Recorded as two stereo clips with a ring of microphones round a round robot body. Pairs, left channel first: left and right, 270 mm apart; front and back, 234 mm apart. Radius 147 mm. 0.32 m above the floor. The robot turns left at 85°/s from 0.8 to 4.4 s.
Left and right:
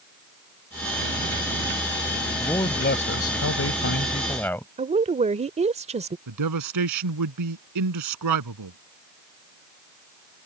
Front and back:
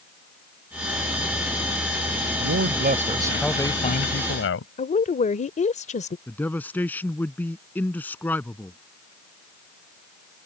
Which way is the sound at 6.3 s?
85° right.